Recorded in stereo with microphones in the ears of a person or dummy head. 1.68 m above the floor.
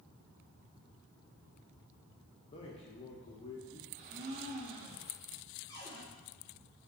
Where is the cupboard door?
20° left (ahead or behind), 1.1 m.